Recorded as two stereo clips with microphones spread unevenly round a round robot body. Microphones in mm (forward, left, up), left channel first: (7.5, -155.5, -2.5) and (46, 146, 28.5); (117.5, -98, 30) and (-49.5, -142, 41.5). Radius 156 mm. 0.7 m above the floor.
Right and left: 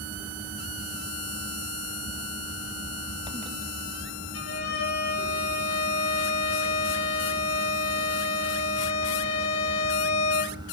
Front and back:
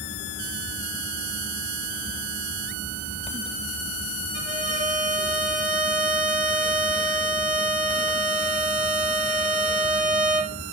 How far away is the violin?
About 3.5 m.